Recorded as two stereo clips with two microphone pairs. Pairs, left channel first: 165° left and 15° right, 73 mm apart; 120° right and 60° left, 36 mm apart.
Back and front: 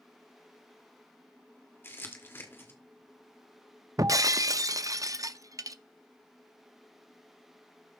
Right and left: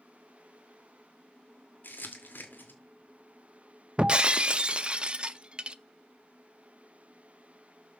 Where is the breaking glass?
Straight ahead, 0.5 m.